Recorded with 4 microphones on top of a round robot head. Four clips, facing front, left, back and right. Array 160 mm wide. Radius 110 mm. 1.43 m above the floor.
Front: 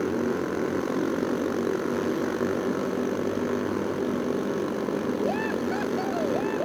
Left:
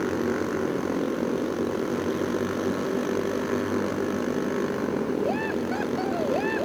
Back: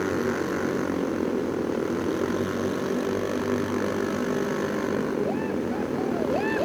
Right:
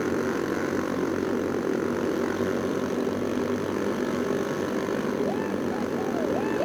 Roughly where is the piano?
I don't hear a piano.